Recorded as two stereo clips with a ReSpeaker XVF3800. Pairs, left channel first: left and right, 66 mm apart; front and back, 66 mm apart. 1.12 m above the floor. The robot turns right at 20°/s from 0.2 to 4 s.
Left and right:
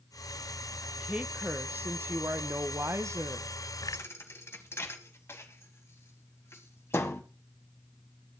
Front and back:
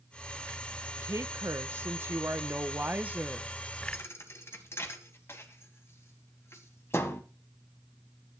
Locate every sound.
1.0 s a woman speaking: 160° right, 1.0 m; by 3.5 s 110° right, 1.0 m
3.9 s a thud: 40° left, 1.7 m; by 7.2 s 45° left, 1.7 m